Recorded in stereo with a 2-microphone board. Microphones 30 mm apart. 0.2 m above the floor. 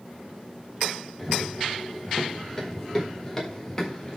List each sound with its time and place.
1.2 s running footsteps: centre (ahead or behind), 6.5 m; by 4.2 s 15° left (ahead or behind), 6 m